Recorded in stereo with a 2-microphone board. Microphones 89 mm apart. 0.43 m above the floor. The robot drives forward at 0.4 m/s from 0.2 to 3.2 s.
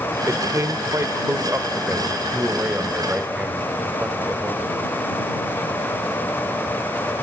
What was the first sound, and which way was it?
A man speaking, 35° right (ahead or behind).